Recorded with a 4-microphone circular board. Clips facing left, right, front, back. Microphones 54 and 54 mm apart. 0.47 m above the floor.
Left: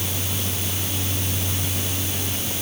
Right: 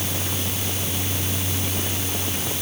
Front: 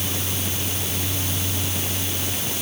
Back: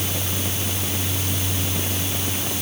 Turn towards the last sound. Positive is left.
No sound to turn to.